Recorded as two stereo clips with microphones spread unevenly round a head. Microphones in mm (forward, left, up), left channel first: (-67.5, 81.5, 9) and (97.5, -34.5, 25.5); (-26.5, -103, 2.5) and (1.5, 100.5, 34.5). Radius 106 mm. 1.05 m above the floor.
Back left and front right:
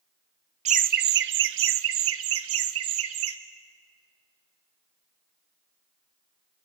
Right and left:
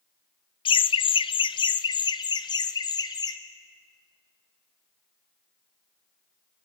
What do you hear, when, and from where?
0.7 s laughter: 70° right, 0.6 m; by 3.4 s 30° right, 1.7 m